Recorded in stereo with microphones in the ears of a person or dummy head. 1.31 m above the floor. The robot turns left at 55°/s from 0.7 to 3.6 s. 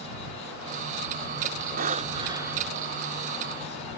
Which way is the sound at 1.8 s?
130° right.